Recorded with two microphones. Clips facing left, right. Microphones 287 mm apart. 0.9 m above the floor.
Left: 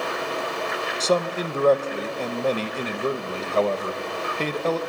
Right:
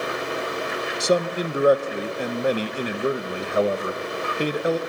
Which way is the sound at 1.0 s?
15° right (ahead or behind).